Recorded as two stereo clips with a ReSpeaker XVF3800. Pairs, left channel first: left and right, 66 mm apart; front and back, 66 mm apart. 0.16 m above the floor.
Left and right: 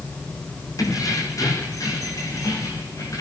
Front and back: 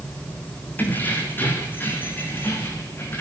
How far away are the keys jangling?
About 5.5 m.